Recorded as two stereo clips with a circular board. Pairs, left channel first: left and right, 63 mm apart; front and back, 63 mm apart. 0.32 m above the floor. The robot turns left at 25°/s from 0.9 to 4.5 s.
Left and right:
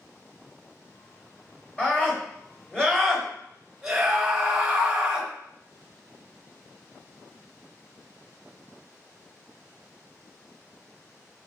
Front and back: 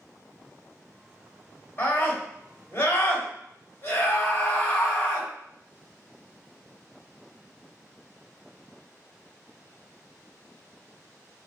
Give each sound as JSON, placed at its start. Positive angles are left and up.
{"t": 1.8, "sound": "a scream", "azimuth_deg": 35, "distance_m": 1.2}